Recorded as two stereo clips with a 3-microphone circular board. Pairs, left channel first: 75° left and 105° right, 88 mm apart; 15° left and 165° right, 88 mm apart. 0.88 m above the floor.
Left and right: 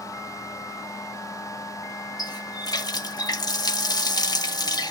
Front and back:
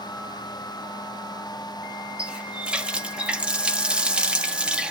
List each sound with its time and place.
2.2 s a running tap: 115° left, 1.1 m